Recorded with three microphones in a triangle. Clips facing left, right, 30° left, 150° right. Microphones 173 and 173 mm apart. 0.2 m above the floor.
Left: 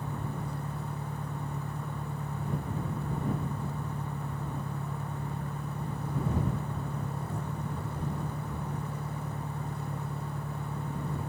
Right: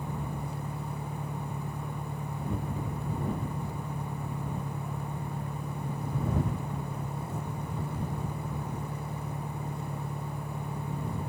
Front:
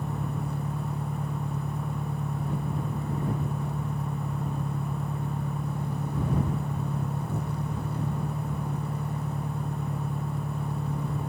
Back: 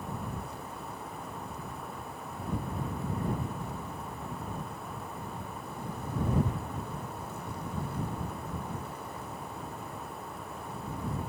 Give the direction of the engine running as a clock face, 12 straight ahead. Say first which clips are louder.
Even, front 6 dB; 12 o'clock.